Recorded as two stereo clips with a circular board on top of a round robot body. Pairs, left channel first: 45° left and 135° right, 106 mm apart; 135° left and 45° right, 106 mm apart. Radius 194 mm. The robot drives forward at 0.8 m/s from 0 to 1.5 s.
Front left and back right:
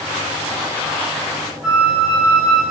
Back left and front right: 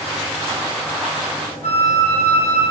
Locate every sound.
1.6 s a flute: 145° left, 3.5 m